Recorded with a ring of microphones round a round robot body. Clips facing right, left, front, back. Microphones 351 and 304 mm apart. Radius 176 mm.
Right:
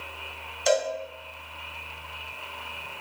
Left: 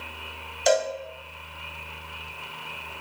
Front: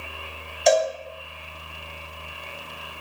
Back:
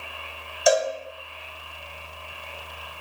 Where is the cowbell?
100° left, 1.7 m.